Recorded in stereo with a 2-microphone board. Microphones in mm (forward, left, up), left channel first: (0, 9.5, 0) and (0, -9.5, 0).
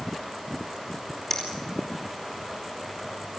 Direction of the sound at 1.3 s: 15° left (ahead or behind).